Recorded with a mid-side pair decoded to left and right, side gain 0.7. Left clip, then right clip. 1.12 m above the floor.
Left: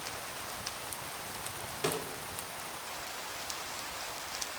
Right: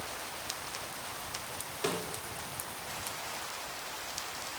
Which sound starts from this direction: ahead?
A snare drum, at 1.8 s.